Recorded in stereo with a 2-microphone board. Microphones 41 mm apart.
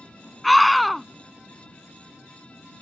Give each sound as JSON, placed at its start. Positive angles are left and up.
{"t": 0.4, "sound": "a scream", "side_deg": 0}